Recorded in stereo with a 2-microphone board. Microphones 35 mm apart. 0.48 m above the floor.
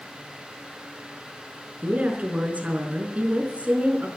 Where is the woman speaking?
40° right (ahead or behind), 4.5 m.